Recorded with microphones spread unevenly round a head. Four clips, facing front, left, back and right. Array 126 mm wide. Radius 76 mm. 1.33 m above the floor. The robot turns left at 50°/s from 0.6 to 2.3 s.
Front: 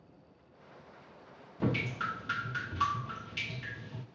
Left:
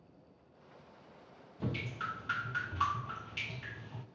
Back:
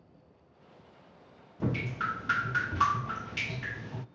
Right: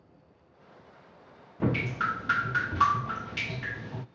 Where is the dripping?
65° right, 0.5 m; by 4.0 s 100° right, 0.5 m.